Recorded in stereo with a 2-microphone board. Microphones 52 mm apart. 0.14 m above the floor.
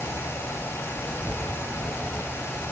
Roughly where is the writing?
Centre.